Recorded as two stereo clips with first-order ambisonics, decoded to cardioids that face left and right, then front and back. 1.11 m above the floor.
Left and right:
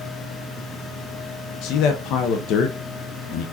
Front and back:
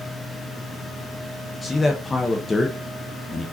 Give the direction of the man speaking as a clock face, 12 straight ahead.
9 o'clock.